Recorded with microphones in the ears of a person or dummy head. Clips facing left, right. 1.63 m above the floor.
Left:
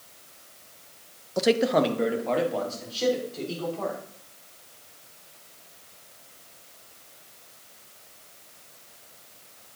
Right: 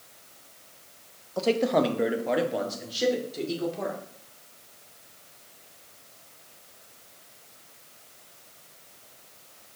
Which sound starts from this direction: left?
A man speaking, at 1.4 s.